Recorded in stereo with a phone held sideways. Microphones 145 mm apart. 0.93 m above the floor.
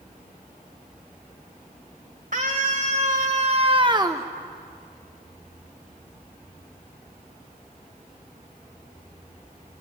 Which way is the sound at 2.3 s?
65° right (ahead or behind).